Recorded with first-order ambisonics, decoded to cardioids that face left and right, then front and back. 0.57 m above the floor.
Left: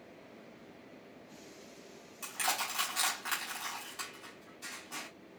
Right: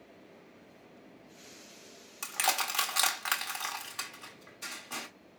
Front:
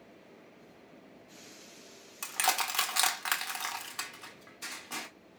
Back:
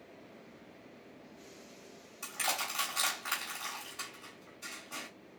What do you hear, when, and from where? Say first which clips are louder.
2.2 s crushing: right 4 dB, front 5 dB; 40° right, 1.1 m